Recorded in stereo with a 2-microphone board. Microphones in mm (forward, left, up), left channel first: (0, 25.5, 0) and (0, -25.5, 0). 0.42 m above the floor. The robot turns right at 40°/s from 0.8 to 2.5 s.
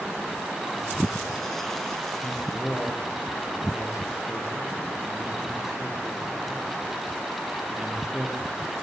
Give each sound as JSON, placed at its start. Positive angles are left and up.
{"t": 2.2, "sound": "a man speaking", "side_deg": 0, "distance_m": 9.0}